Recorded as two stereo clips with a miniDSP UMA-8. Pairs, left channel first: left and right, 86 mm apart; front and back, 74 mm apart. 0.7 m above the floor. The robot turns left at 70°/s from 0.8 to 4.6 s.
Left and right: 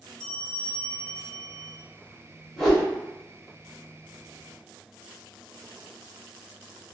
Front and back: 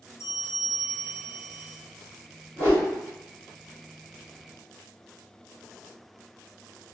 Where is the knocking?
No knocking in this recording.